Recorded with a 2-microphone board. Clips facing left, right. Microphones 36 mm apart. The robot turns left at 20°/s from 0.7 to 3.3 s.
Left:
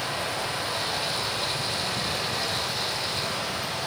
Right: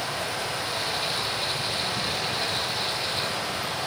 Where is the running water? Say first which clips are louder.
Even; 40° left, 8.5 m; by 3.9 s 10° right, 8.5 m.